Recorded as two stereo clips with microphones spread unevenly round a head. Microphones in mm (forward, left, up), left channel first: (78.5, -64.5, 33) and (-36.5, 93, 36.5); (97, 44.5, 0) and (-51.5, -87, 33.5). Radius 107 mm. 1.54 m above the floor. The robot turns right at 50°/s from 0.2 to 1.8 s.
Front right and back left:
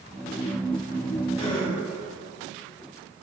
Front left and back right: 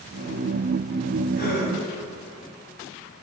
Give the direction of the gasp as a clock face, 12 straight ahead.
12 o'clock.